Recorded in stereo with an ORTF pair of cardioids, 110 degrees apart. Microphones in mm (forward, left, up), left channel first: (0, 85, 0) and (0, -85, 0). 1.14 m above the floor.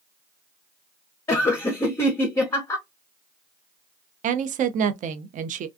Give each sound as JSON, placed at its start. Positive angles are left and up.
{"t": 1.3, "sound": "laughter", "azimuth_deg": 15, "distance_m": 0.6}
{"t": 4.2, "sound": "a woman speaking", "azimuth_deg": -50, "distance_m": 0.5}